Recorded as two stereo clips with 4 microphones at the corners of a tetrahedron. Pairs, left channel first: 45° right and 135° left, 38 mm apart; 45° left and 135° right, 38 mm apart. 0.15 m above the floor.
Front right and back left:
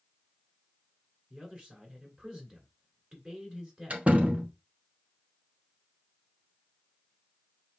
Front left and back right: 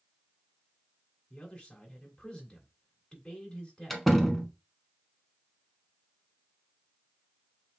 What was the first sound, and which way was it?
A man speaking, 90° left.